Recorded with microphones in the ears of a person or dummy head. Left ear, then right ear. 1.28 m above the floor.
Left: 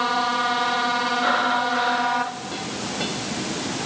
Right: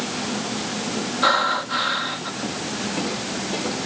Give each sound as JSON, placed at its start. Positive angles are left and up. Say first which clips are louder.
{"t": 1.2, "sound": "breathing", "louder": "right 5 dB", "side_deg": -25}